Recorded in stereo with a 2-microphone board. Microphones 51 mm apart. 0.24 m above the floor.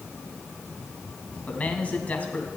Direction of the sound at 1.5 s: 30° left (ahead or behind).